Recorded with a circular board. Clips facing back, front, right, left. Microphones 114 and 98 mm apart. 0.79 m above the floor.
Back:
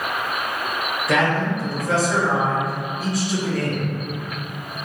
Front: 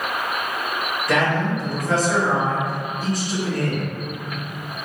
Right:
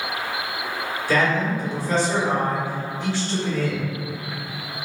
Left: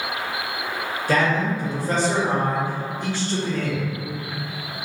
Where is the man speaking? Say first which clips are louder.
Even, even; 95° left, 1.1 m.